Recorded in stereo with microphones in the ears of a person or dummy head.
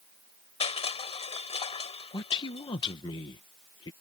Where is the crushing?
30° left (ahead or behind).